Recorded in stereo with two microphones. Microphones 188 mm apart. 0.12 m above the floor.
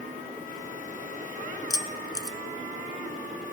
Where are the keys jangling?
20° left (ahead or behind), 0.9 m.